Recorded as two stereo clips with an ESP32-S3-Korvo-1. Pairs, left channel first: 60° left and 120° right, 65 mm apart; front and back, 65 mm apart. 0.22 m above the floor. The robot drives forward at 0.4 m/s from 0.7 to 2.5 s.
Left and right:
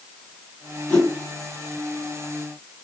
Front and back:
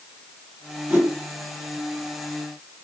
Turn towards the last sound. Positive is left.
turn(degrees=145)